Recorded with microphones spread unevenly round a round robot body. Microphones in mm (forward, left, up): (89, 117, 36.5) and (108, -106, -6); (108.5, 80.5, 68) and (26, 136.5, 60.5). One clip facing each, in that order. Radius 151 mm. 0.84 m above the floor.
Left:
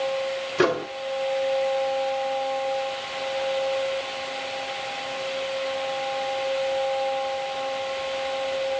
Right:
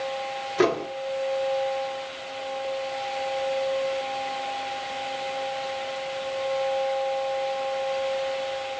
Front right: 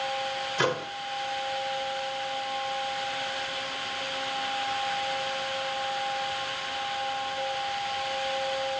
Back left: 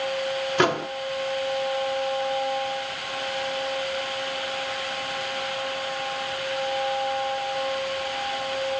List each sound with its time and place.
0.6 s a microwave: straight behind, 1.6 m